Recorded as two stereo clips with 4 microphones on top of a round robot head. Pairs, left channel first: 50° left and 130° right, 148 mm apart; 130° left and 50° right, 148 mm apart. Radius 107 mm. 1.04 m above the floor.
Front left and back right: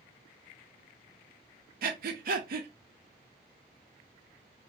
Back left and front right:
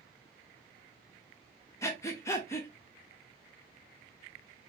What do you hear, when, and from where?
1.8 s breathing: 160° right, 0.6 m